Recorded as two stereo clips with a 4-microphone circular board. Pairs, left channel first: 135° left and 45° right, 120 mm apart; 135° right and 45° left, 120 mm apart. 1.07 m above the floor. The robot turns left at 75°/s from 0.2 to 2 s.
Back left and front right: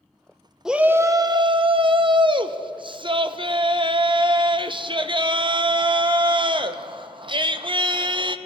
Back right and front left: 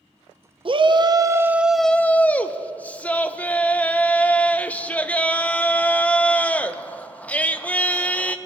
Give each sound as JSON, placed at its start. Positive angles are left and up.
{"t": 0.7, "sound": "a shout", "azimuth_deg": 40, "distance_m": 0.5}